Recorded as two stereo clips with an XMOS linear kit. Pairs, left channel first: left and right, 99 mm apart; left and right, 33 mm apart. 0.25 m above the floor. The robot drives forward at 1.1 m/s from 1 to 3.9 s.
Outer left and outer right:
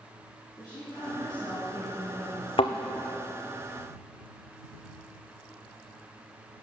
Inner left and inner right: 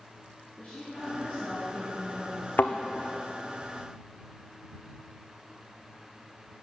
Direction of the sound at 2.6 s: 70° left (ahead or behind).